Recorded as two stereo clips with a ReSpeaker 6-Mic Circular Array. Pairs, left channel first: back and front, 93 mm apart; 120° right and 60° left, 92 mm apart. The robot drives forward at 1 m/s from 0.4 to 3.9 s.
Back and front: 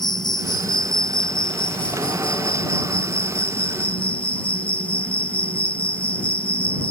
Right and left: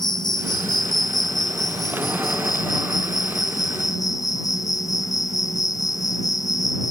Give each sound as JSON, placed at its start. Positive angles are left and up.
{"t": 0.0, "sound": "an insect", "azimuth_deg": -150}